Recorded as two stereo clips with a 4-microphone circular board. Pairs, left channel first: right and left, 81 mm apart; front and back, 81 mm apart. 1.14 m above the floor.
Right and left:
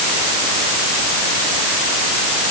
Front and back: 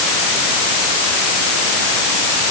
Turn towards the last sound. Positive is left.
No sound to turn to.